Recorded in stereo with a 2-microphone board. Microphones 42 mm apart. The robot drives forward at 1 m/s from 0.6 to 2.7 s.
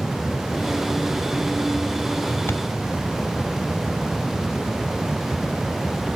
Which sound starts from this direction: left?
A thud, at 2.5 s.